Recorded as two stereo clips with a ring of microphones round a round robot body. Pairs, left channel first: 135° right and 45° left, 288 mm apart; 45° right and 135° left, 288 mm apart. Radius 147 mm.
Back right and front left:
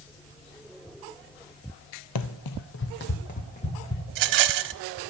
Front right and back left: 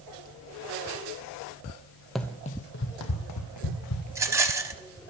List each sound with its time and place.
2.1 s running footsteps: 135° right, 0.7 m; by 4.0 s 65° right, 1.9 m
4.1 s a rattle: 55° left, 0.6 m